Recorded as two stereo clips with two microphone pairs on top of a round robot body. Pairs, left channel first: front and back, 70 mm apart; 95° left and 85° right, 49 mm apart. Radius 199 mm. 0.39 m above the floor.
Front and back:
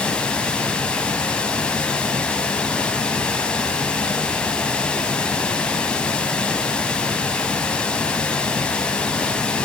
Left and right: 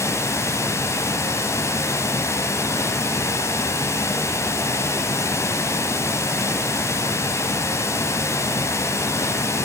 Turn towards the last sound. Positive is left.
turn(degrees=75)